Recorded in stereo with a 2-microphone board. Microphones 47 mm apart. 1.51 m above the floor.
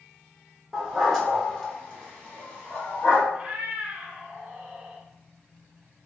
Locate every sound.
0.7 s a dog barking: 5° right (ahead or behind), 1.2 m; by 3.2 s 35° left (ahead or behind), 1.7 m
3.3 s a cat meowing: 25° right (ahead or behind), 1.2 m